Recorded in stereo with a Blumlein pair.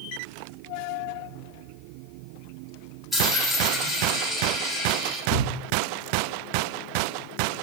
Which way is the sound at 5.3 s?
15° left.